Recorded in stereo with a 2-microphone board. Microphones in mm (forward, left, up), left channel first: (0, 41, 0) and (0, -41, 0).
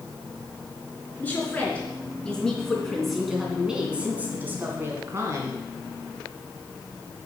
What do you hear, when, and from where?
1.2 s a woman speaking: 20° left (ahead or behind), 4 m; by 5.6 s 40° right (ahead or behind), 3 m